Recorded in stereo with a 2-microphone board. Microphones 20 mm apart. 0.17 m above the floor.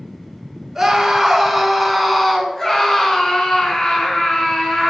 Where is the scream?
10° right (ahead or behind), 2.5 m; by 4.9 s 55° left (ahead or behind), 3 m.